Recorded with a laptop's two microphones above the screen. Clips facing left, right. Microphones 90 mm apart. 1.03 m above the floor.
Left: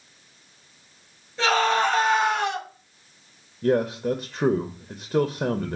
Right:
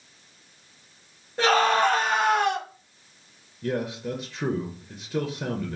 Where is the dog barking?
I don't hear a dog barking.